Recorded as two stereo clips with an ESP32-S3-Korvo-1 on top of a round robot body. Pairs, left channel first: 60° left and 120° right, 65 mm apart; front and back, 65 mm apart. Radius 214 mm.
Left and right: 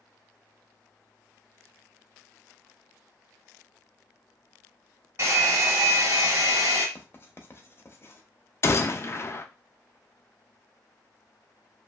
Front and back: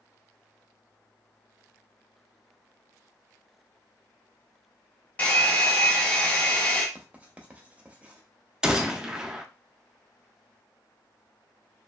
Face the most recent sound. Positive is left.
turn(degrees=100)